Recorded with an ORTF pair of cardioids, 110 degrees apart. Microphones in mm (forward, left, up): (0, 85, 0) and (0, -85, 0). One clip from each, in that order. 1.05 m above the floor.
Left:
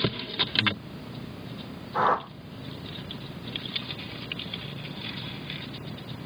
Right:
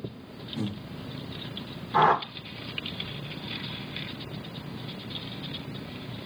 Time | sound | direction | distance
0.6 | breathing | 50° right | 1.2 m
1.9 | a whoosh | 65° right | 1.2 m